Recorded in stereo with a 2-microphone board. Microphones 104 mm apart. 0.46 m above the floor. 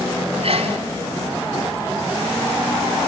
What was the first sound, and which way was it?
A sneeze, 60° right (ahead or behind).